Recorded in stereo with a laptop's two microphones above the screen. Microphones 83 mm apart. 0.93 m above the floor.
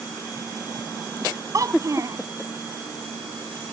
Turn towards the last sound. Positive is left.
turn(degrees=-40)  # may be behind; listen again after turning